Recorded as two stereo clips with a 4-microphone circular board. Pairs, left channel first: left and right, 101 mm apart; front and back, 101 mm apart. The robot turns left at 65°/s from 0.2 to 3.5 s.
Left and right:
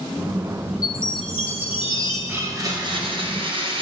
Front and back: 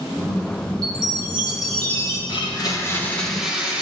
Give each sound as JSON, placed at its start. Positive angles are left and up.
{"t": 0.8, "sound": "a chime", "azimuth_deg": 140, "distance_m": 1.3}
{"t": 2.3, "sound": "a blender", "azimuth_deg": -20, "distance_m": 1.1}